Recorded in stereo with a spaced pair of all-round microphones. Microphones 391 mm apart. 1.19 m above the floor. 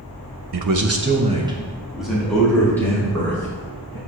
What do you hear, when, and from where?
0.5 s a man speaking: 75° right (ahead or behind), 0.6 m; by 4.0 s 10° left (ahead or behind), 4 m